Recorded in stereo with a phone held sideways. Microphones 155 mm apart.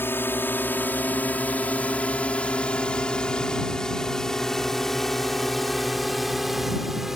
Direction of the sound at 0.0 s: 15° left (ahead or behind).